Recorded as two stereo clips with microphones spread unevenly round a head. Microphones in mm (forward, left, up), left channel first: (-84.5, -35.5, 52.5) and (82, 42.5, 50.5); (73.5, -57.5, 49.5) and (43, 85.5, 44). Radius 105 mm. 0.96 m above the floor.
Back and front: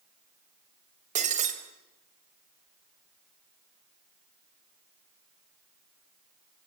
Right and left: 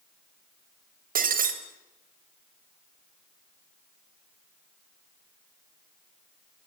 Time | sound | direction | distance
1.1 | breaking glass | 80° left | 3 m